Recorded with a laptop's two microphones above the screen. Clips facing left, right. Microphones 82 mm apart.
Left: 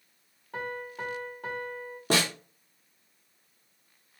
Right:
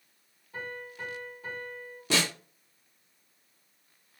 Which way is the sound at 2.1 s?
45° left (ahead or behind).